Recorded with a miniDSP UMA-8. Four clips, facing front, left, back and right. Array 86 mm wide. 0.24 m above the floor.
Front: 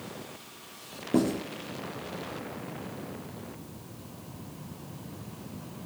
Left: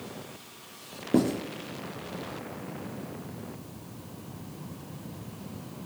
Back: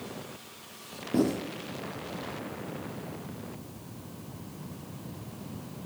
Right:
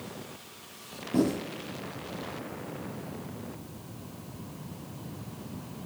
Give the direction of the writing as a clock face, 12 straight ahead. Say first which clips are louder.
Left 2 dB, front 1 dB; 10 o'clock.